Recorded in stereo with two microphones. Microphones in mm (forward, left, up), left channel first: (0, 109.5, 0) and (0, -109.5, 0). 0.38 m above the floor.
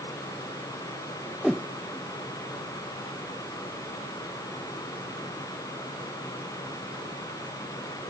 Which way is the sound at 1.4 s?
Centre (ahead or behind).